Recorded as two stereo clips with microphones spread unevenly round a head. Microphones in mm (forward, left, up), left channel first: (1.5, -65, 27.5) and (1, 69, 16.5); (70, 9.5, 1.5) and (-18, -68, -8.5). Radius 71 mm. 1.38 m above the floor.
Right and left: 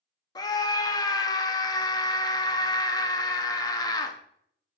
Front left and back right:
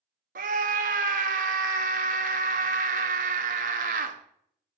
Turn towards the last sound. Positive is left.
turn(degrees=-155)